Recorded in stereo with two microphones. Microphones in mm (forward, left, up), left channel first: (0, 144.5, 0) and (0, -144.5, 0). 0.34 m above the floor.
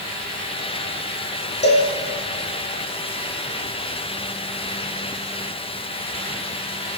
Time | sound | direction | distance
1.6 | a cowbell | 40° left (ahead or behind) | 5.5 m